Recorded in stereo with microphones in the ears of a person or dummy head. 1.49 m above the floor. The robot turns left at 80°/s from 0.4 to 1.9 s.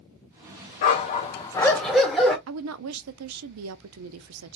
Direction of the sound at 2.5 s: 90° right.